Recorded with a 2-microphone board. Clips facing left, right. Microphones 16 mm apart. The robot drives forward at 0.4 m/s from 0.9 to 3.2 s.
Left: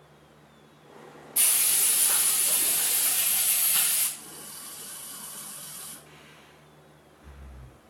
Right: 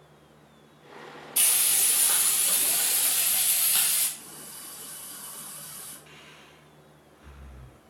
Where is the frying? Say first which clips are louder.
Right 1 dB; 55° right (ahead or behind), 1.7 m; by 4.1 s 40° right (ahead or behind), 2 m.